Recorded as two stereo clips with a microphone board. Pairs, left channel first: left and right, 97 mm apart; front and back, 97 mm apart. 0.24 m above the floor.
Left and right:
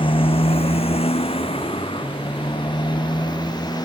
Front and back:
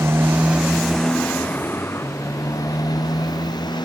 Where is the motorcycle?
115° left; by 3.9 s 45° left.